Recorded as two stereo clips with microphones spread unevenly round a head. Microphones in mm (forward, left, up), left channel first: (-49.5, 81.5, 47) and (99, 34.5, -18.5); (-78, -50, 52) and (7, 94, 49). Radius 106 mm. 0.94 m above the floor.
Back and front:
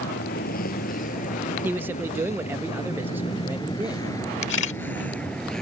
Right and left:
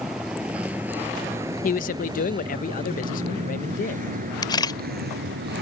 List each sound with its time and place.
0.0 s a vehicle: 145° left; by 5.6 s 80° left
1.6 s a man speaking: 85° right
4.4 s a camera shutter: 175° left